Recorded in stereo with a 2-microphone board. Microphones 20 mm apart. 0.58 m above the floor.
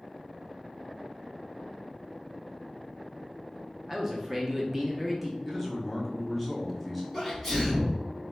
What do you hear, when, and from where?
3.9 s a man speaking: 10° right (ahead or behind), 0.7 m
5.5 s a man speaking: centre (ahead or behind), 0.9 m
7.1 s a sneeze: 10° right (ahead or behind), 1.2 m